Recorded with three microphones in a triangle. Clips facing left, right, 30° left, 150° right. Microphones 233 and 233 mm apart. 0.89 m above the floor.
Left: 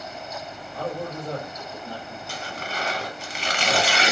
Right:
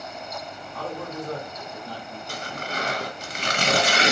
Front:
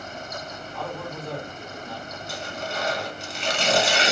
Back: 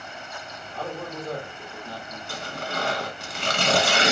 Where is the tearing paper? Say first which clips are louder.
Right 2 dB, even; 135° right, 0.9 m.